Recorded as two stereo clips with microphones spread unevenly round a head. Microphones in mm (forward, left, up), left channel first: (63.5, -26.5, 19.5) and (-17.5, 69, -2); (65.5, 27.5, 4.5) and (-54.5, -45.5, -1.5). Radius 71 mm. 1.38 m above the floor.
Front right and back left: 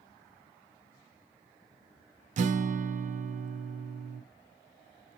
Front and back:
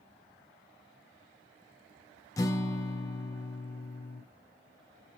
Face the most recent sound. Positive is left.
turn(degrees=100)